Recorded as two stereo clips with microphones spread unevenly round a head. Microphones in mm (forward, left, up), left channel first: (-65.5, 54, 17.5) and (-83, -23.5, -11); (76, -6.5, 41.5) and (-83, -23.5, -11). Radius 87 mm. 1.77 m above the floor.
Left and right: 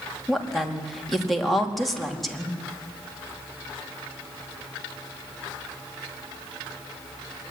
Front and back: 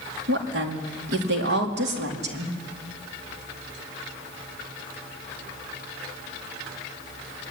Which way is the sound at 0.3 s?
165° left.